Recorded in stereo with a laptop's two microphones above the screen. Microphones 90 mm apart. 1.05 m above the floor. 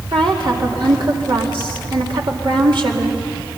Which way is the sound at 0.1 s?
70° right (ahead or behind).